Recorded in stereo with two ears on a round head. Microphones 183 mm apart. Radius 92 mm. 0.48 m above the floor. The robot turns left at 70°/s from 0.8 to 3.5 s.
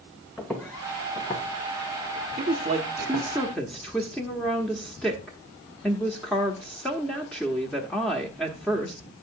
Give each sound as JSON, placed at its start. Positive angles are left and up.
{"t": 0.4, "sound": "footsteps", "side_deg": 5, "distance_m": 2.0}
{"t": 2.4, "sound": "a woman speaking", "azimuth_deg": -105, "distance_m": 1.0}